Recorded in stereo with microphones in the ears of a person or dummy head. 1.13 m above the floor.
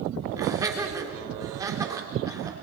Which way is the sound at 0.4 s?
20° right (ahead or behind).